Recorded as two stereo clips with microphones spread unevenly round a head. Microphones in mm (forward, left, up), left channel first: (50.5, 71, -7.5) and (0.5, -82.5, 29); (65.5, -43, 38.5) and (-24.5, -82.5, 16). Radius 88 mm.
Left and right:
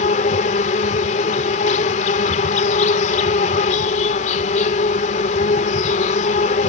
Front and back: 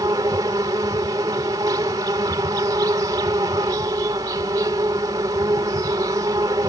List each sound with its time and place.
0.0 s an insect: 125° left